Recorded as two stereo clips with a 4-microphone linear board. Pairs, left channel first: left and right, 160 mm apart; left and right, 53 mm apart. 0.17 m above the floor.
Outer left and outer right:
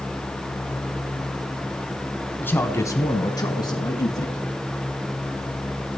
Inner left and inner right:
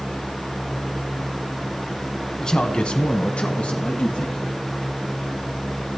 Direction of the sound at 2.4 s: 10° left (ahead or behind).